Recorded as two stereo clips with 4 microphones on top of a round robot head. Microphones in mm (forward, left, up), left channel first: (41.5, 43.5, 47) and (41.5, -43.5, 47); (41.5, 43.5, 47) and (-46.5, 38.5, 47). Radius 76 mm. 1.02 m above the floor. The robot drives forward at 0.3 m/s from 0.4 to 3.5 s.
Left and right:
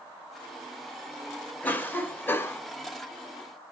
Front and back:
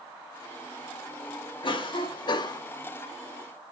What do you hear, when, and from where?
1.6 s a cough: 20° left, 1.0 m; by 2.6 s 30° left, 0.8 m